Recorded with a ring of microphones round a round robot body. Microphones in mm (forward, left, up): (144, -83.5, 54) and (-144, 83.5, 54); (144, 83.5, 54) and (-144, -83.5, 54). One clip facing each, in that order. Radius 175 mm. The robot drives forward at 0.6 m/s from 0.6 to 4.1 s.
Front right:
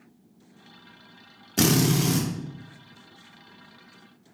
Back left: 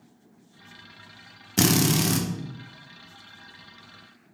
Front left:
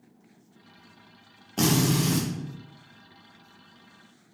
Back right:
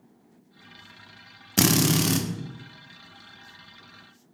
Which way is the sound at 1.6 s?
140° right.